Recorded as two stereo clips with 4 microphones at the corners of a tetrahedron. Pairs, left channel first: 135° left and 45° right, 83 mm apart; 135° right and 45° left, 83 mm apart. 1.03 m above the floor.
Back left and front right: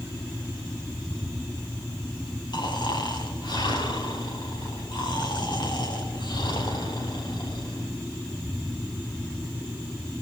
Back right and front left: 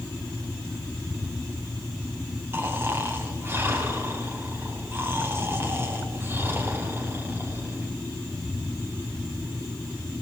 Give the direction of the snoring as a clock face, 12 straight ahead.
8 o'clock.